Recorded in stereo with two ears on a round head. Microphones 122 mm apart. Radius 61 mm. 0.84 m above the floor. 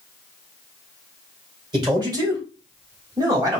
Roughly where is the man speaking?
Right.